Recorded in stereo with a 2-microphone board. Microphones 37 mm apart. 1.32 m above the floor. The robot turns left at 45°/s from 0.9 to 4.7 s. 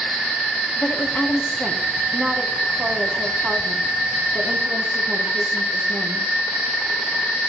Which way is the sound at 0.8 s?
55° left.